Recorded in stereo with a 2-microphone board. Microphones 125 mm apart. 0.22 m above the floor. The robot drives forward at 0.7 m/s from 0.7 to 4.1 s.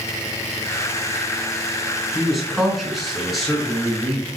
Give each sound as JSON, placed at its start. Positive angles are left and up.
{"t": 2.1, "sound": "a man speaking", "side_deg": 0, "distance_m": 2.5}